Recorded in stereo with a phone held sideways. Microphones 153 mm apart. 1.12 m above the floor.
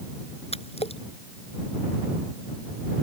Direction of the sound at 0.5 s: 40° left (ahead or behind).